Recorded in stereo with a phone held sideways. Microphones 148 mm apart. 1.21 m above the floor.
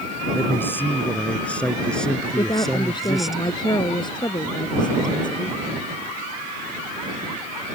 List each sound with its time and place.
0.3 s a man speaking: 15° left (ahead or behind); by 3.4 s centre (ahead or behind)
2.4 s a woman speaking: 30° left (ahead or behind)